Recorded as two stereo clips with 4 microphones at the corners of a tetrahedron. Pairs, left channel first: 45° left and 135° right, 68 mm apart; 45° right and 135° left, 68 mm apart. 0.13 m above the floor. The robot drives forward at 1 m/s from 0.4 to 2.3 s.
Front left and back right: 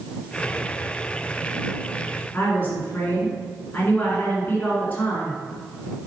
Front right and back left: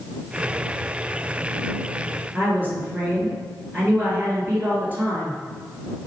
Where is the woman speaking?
90° left, 1.8 m.